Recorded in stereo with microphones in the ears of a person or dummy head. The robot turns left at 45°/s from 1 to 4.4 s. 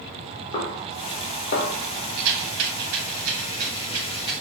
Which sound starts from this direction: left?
A snare drum, at 0.5 s.